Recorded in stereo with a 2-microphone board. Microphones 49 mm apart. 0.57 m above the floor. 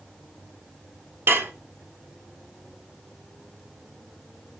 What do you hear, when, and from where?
1.3 s dishes clattering: 50° right (ahead or behind), 0.7 m